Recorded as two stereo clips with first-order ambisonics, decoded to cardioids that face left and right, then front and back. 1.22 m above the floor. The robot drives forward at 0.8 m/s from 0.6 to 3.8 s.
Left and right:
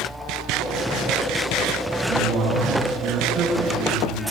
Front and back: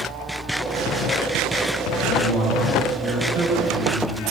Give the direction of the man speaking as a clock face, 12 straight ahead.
4 o'clock.